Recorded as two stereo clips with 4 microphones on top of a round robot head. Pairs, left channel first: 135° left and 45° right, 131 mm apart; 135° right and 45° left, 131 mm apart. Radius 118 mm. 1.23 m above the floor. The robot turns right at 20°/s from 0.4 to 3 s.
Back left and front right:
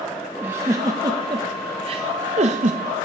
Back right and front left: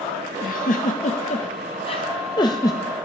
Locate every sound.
0.4 s a giggle: 120° right, 0.5 m; by 2.8 s 70° right, 0.5 m